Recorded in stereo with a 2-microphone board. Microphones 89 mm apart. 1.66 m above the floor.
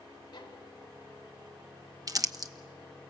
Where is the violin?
50° left (ahead or behind), 4 m.